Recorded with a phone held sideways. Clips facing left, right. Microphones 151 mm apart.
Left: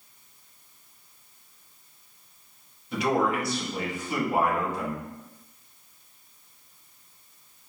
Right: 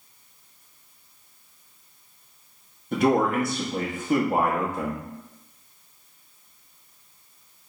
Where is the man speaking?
50° right (ahead or behind), 1.1 m.